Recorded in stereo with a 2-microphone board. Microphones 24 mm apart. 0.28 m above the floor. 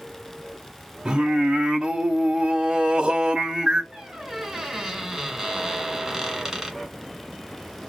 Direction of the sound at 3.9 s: 20° right (ahead or behind).